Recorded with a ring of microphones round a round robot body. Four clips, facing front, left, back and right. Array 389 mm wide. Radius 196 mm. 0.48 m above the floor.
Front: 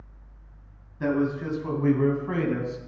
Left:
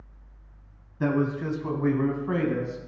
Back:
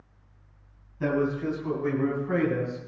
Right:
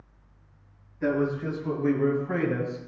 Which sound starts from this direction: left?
A man speaking, at 1.0 s.